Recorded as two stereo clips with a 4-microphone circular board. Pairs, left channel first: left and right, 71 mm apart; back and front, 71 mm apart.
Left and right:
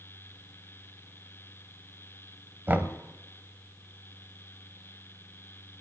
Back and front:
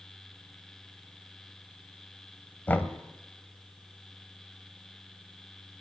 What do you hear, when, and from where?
2.7 s knocking: 135° right, 1.0 m